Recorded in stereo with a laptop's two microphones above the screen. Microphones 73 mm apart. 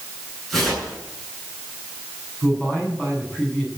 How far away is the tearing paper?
About 8 m.